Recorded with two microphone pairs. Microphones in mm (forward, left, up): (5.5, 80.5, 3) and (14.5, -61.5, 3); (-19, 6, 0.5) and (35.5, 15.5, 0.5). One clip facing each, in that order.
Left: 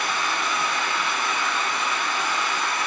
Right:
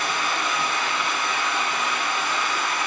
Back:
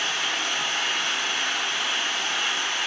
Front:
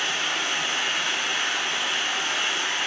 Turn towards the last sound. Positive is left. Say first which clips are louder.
# even, even
turn(degrees=-40)